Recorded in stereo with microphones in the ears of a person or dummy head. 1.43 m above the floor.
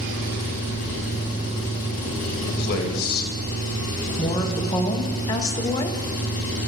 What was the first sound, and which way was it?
An engine running, 50° left (ahead or behind).